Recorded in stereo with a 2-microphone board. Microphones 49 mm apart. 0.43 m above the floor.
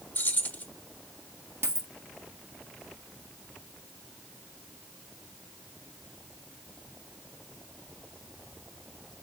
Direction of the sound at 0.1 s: 40° left (ahead or behind).